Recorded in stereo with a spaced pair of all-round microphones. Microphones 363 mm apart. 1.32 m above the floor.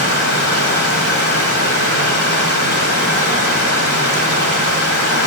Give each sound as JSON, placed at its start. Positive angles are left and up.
{"t": 0.0, "sound": "running water", "side_deg": -35, "distance_m": 2.0}